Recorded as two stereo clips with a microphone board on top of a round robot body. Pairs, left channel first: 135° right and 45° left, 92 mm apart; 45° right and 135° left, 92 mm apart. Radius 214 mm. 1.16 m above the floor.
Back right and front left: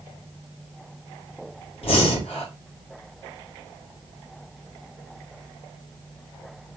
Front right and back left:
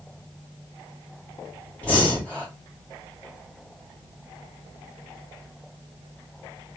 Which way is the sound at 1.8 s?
120° right.